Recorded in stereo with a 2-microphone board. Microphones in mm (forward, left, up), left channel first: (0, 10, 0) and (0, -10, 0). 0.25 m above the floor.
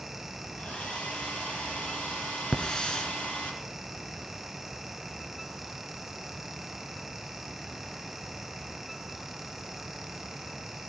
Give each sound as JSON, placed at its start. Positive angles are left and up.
{"t": 0.6, "sound": "a hair dryer", "side_deg": 75, "distance_m": 6.5}
{"t": 2.5, "sound": "a hiss", "side_deg": 40, "distance_m": 2.0}